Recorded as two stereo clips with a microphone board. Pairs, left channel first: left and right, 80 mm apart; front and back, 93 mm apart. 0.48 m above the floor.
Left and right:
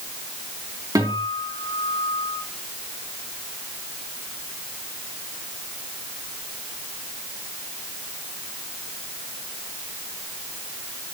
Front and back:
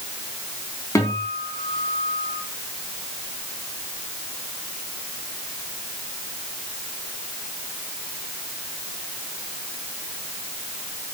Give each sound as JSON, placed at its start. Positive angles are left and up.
{"t": 0.9, "sound": "a guitar", "azimuth_deg": -55, "distance_m": 3.5}